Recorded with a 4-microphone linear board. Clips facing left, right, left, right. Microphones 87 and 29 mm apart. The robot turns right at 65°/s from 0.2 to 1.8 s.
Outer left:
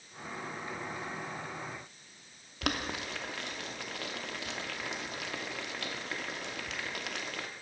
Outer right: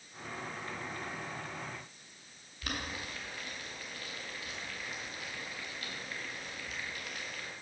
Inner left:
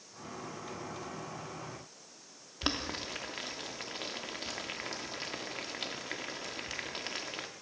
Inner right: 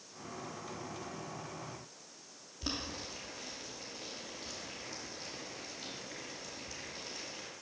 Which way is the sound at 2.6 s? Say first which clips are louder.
Outer left 5 dB, inner left 5 dB; 75° left (ahead or behind).